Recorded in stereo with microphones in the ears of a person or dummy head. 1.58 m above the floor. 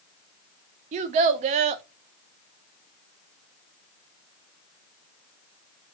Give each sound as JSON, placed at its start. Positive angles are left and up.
{"t": 0.9, "sound": "a child speaking", "side_deg": -35, "distance_m": 0.5}